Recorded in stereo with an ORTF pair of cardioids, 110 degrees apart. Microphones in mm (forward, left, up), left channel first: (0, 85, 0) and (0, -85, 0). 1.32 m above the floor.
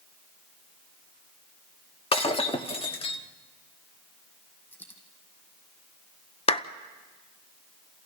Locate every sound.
2.1 s breaking glass: 35° left, 1.7 m
4.7 s a dropped coin: 10° left, 5 m
6.5 s a clap: 35° left, 1.0 m